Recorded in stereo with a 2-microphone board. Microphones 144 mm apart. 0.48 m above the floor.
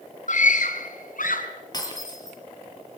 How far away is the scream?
About 4 m.